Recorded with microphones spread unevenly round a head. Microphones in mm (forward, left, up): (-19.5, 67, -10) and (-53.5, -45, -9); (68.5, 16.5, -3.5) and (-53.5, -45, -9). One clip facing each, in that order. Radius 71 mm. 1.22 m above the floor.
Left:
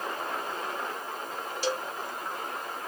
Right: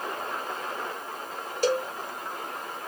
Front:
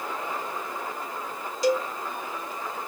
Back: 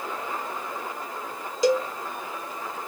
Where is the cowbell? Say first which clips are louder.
Right 7 dB, back 2 dB; 145° right, 0.7 m.